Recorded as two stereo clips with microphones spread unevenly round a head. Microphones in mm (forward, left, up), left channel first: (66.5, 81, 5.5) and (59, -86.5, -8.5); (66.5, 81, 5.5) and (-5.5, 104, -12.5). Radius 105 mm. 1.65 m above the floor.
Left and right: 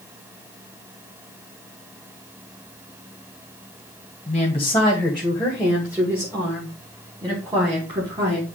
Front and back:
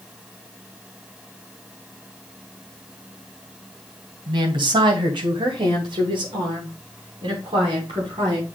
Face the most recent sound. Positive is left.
turn(degrees=-155)